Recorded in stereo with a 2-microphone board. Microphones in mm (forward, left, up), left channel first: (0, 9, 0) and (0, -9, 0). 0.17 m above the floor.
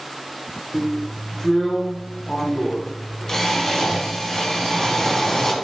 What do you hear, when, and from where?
0.7 s a drill: 25° left (ahead or behind), 0.7 m